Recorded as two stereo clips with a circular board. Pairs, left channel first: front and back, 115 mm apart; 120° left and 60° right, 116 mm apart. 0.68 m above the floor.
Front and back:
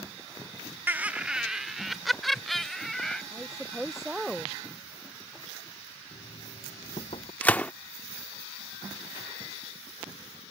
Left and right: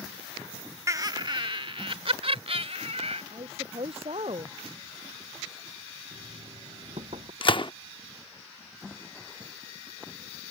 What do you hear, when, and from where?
0.9 s laughter: 115° right; by 3.2 s 85° right
3.3 s a woman speaking: 95° right
6.1 s knocking: 30° right
7.4 s a gunshot: 75° left